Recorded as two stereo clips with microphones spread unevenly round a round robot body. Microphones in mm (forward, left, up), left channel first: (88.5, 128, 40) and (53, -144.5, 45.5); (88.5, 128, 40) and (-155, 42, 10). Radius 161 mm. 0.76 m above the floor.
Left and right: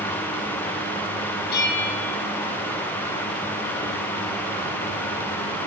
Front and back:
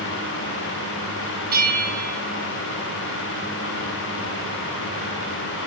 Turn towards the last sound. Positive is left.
turn(degrees=145)